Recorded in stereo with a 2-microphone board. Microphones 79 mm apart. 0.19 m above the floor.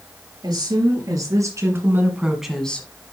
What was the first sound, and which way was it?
A woman speaking, 55° right (ahead or behind).